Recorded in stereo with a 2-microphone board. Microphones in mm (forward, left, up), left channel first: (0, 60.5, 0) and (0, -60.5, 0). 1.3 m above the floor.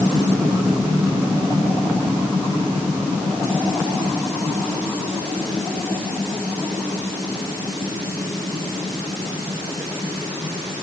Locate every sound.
Only background noise.